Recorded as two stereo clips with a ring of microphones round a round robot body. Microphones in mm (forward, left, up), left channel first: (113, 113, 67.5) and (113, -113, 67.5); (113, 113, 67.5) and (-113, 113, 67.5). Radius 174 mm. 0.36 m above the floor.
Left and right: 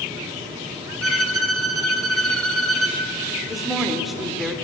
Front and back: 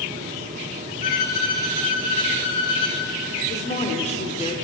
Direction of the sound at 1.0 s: 65° right.